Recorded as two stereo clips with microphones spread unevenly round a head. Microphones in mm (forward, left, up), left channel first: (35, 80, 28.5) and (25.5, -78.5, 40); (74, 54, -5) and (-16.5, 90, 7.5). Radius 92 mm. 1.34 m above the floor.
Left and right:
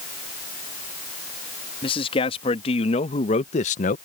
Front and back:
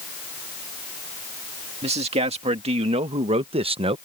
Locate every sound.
1.8 s a man speaking: 145° left; by 4.0 s 130° left